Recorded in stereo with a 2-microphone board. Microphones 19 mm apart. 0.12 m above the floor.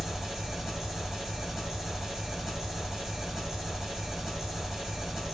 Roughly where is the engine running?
Right.